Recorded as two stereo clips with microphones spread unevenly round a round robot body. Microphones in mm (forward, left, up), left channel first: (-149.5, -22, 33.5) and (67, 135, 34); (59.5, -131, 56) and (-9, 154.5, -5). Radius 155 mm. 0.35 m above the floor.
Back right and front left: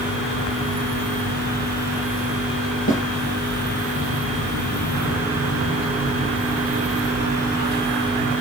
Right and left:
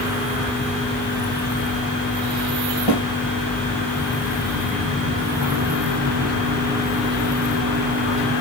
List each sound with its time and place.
2.9 s a snare drum: 95° right, 3 m